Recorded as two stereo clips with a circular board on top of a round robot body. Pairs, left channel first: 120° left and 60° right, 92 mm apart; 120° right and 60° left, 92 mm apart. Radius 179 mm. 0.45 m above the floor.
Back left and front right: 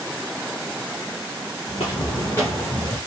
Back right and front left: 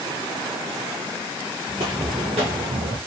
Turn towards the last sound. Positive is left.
turn(degrees=30)